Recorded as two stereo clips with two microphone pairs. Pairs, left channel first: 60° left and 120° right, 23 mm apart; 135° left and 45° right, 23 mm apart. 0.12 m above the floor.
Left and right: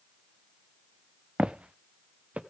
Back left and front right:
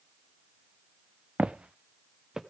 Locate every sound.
1.4 s footsteps: 75° right, 0.5 m; by 2.4 s 110° right, 0.9 m